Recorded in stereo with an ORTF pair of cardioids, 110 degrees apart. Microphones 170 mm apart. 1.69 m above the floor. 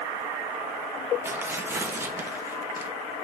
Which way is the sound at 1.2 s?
15° right.